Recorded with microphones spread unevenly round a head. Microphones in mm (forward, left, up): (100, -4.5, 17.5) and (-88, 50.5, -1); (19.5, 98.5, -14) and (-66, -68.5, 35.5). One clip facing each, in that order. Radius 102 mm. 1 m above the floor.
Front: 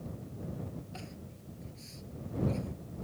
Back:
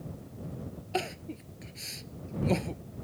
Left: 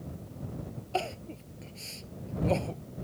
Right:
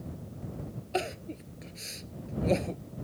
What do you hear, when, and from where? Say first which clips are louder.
0.9 s crying: back 12 dB, right 1 dB; 175° left